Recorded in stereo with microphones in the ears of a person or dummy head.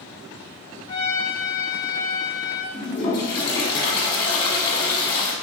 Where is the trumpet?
20° left (ahead or behind), 1.2 m.